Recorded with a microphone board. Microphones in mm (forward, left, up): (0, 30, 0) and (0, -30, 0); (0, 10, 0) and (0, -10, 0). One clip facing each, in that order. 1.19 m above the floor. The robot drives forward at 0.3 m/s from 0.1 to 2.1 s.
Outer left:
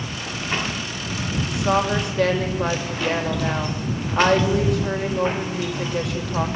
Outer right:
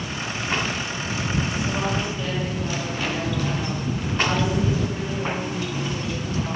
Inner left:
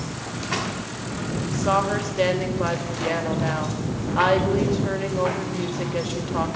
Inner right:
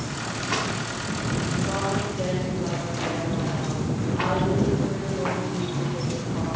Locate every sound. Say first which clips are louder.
1.5 s a woman speaking: outer left 5 dB, inner left 8 dB; 70° left (ahead or behind), 5 m